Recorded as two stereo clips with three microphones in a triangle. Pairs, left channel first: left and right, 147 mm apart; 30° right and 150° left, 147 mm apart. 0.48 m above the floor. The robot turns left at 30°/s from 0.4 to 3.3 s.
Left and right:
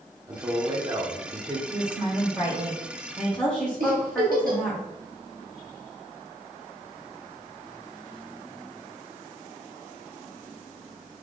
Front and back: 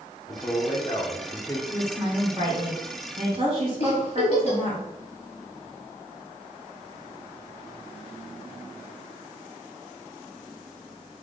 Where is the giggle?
75° right, 1.1 m.